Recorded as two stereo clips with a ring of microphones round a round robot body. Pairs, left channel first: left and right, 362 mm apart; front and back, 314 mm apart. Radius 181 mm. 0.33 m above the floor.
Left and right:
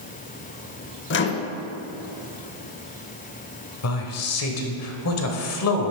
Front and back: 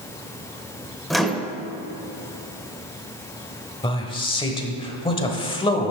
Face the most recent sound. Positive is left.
turn(degrees=70)